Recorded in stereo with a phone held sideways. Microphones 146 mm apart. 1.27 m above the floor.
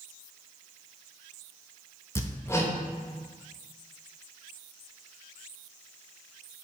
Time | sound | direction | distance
2.1 | hammering | 20° left (ahead or behind) | 0.7 m